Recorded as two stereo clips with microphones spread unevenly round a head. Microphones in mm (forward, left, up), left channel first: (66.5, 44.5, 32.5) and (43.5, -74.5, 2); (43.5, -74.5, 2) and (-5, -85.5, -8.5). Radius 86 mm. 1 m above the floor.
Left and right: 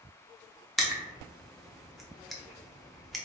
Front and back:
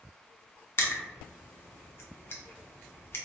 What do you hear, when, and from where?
0.8 s crushing: 5° right, 0.9 m